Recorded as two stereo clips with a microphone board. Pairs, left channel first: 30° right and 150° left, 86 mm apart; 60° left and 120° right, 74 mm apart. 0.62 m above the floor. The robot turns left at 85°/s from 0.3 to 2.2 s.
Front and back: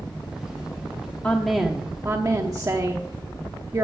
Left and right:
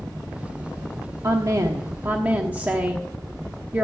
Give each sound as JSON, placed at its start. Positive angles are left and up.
{"t": 1.2, "sound": "a woman speaking", "azimuth_deg": -95, "distance_m": 0.9}